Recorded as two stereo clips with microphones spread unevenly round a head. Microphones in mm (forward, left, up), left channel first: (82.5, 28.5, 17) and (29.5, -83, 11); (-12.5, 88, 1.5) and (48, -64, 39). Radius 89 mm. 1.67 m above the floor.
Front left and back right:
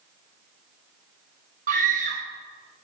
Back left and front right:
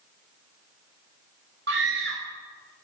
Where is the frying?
I don't hear frying.